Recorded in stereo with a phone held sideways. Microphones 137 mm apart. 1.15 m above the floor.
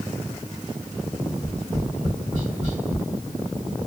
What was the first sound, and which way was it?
Tapping, 60° right (ahead or behind).